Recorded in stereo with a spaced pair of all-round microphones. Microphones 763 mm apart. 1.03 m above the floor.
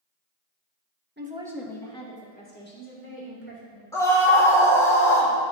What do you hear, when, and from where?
1.2 s a woman speaking: 15° right (ahead or behind), 1.0 m; by 3.8 s 20° left (ahead or behind), 4 m
3.9 s a scream: 5° left (ahead or behind), 3 m